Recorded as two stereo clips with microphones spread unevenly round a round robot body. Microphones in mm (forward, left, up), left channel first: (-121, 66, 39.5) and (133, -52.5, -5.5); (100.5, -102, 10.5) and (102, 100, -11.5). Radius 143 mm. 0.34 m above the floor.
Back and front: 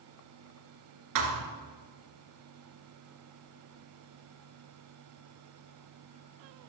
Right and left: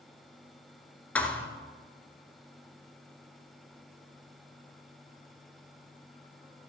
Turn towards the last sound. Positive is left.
turn(degrees=-10)